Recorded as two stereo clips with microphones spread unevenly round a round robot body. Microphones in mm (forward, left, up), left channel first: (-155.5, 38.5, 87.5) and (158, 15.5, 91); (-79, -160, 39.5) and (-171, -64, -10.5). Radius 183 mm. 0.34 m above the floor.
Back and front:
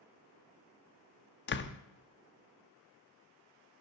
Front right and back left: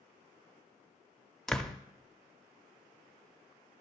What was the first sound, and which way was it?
A door slam, 160° right.